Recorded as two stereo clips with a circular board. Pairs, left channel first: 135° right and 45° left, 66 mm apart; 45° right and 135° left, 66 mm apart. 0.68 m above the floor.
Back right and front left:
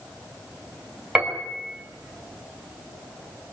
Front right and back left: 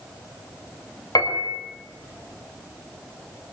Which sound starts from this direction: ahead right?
A piano, at 1.1 s.